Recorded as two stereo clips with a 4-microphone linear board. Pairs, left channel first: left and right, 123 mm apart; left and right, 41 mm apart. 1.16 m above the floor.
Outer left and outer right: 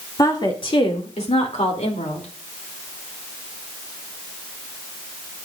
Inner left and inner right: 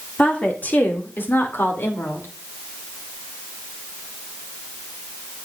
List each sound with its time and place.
0.2 s a woman speaking: 30° left (ahead or behind), 2 m; by 2.3 s 75° left (ahead or behind), 3 m